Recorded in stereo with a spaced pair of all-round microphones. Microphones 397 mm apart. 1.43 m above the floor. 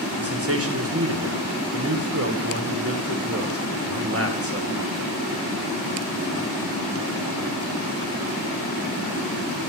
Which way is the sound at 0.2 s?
35° right (ahead or behind).